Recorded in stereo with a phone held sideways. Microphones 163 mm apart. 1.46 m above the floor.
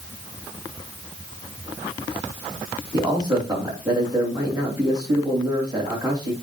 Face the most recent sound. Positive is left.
turn(degrees=-25)  # may be behind; listen again after turning